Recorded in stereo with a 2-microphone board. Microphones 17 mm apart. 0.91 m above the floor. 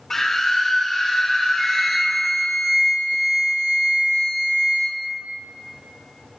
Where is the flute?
10° left (ahead or behind), 4.5 m.